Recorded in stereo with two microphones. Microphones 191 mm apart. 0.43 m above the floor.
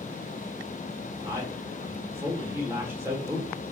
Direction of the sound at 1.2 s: 15° right (ahead or behind).